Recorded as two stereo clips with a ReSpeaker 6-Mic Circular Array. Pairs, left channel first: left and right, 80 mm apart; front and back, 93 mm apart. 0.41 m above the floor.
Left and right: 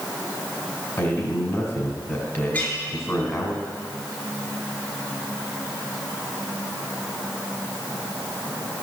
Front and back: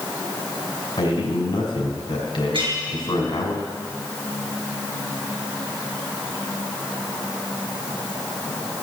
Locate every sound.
1.0 s a man speaking: 35° left, 2.5 m
2.5 s a clink: 155° left, 3.5 m